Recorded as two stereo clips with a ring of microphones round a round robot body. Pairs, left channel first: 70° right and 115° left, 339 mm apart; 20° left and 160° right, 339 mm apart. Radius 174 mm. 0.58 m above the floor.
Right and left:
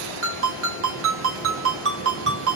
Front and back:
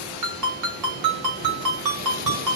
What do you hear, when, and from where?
0.2 s a ringtone: 165° left, 1.1 m